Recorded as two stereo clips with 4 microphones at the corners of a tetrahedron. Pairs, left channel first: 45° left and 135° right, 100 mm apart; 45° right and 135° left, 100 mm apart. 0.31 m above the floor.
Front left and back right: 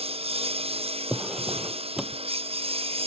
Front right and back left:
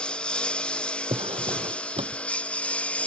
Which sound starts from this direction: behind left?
A drawer, at 1.1 s.